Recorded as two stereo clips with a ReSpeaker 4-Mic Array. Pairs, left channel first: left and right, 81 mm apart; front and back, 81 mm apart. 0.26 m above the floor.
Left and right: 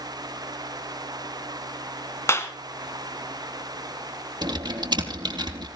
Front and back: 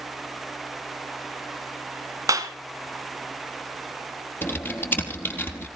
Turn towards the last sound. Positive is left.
turn(degrees=-65)